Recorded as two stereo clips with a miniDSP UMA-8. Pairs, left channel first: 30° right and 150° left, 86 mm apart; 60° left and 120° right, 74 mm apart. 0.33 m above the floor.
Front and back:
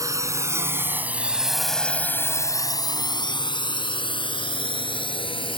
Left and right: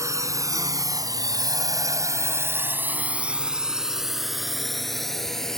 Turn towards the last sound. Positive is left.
turn(degrees=-25)